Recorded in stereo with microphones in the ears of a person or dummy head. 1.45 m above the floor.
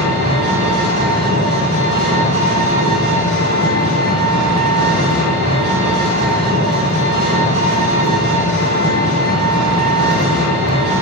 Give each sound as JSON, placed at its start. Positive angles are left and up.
{"t": 0.0, "sound": "an engine running", "side_deg": -30, "distance_m": 0.9}